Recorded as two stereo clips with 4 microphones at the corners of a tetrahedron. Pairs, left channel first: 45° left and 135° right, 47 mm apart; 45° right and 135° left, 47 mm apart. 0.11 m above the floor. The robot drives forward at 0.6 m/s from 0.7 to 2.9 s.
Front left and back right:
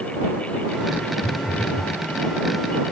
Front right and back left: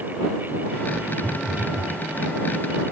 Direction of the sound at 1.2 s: 65° left.